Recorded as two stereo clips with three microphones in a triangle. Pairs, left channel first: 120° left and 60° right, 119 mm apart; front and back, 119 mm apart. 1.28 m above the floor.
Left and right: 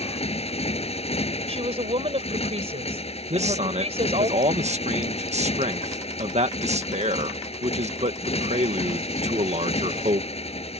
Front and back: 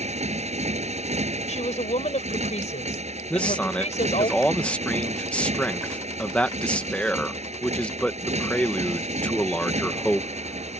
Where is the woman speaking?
25° right.